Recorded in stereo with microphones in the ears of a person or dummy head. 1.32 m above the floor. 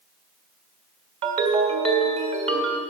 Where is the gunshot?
No gunshot in this recording.